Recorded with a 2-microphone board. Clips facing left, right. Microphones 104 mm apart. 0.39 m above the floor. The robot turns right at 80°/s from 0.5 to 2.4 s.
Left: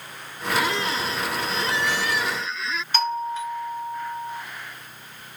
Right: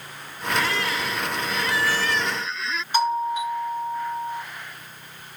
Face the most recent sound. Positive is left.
turn(degrees=-15)  # may be behind; listen again after turning